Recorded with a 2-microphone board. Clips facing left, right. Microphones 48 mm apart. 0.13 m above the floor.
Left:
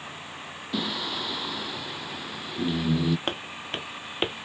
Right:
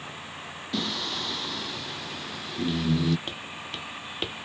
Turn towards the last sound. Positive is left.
turn(degrees=25)  # may be behind; listen again after turning